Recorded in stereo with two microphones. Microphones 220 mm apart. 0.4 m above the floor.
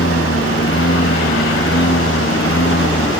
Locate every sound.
0.0 s a lawn mower: 70° left (ahead or behind)